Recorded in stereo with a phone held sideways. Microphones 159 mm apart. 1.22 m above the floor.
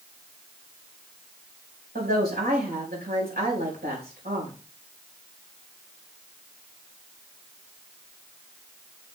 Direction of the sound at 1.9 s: 80° right.